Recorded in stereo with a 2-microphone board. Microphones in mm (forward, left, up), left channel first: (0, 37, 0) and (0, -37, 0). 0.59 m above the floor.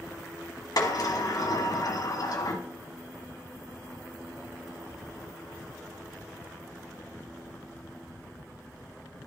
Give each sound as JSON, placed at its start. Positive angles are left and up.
{"t": 0.8, "sound": "a sliding door", "side_deg": 60, "distance_m": 1.4}